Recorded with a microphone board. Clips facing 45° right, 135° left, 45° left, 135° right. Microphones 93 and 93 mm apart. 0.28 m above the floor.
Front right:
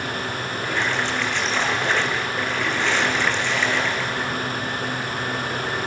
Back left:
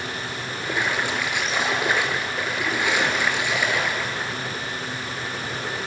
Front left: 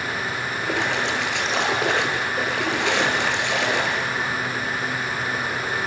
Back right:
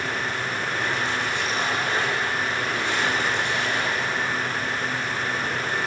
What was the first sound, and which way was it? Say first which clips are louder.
A splash: even, front left 4 dB; 55° left.